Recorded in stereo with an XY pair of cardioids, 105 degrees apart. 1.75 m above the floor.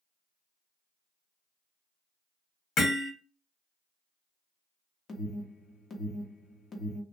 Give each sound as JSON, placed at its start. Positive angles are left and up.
{"t": 2.8, "sound": "hammering", "azimuth_deg": 65, "distance_m": 1.3}
{"t": 5.1, "sound": "an alarm", "azimuth_deg": 45, "distance_m": 0.8}